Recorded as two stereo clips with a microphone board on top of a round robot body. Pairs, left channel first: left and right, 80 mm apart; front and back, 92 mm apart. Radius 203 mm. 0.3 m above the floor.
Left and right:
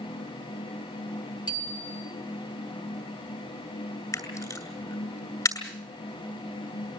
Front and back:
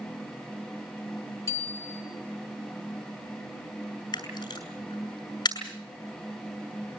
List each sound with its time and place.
1.5 s a bicycle bell: 60° left, 7 m
4.1 s a camera shutter: 40° left, 7.5 m